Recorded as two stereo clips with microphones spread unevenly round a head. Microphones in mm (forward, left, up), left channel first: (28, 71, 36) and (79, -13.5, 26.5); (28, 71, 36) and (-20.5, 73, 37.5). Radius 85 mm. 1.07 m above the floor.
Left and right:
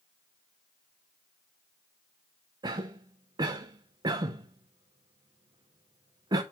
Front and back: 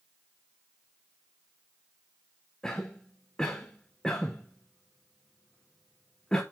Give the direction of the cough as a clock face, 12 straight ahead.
2 o'clock.